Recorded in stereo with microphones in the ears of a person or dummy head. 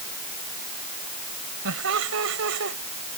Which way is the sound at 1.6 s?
85° right.